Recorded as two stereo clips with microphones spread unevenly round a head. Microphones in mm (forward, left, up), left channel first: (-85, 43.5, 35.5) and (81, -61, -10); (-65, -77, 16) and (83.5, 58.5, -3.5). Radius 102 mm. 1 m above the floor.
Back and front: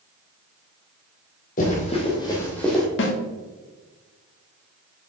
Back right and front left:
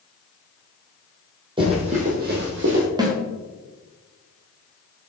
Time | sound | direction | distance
1.6 | running footsteps | 110° left | 2 m
3.0 | a snare drum | 110° left | 1.4 m